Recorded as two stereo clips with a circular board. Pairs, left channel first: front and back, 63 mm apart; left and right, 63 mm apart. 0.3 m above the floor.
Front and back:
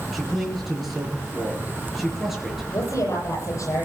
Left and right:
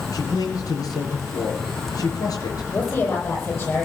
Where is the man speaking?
90° left, 7 m.